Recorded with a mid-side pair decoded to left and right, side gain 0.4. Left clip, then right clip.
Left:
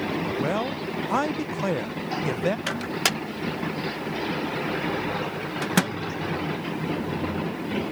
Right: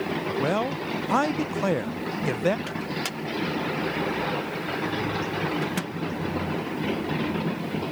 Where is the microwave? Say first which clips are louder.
Left 5 dB; 70° left.